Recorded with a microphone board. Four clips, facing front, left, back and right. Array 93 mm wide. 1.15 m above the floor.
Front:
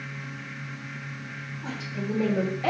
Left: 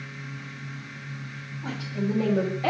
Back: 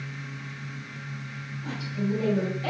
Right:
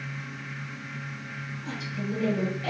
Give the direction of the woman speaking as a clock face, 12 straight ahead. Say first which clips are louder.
Left 5 dB, back 3 dB; 10 o'clock.